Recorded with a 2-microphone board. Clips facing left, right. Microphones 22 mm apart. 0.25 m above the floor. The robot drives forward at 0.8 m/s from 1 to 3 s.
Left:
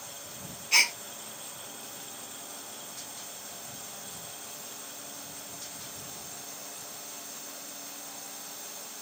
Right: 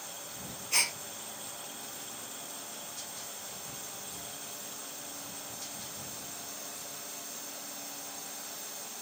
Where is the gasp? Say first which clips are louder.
Left 7 dB; 40° left (ahead or behind), 1.1 m.